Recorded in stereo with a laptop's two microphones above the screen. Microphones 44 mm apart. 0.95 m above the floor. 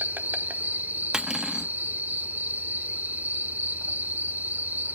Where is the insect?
40° right (ahead or behind), 0.9 m.